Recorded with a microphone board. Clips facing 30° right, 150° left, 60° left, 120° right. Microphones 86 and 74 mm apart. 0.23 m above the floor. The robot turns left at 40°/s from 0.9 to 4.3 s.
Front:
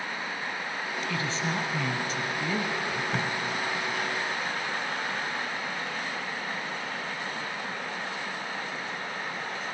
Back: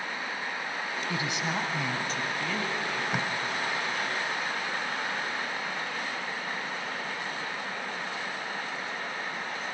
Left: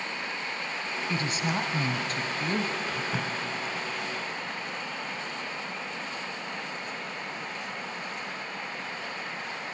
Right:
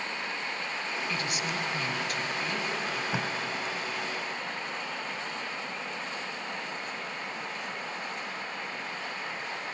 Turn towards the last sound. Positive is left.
turn(degrees=155)